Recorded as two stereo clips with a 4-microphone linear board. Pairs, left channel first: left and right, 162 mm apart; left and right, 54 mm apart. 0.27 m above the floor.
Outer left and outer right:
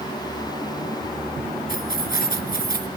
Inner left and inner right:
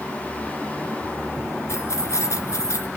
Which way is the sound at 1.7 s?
60° left (ahead or behind).